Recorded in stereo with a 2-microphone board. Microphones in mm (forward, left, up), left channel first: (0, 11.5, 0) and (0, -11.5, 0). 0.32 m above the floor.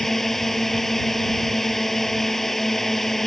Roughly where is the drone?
Centre.